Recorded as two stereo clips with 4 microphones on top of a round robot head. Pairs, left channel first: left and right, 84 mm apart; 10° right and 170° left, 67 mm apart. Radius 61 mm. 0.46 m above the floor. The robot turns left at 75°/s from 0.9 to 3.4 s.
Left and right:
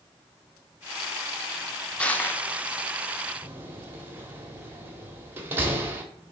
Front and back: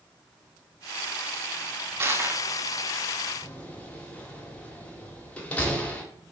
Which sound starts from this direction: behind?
Crushing, at 2.0 s.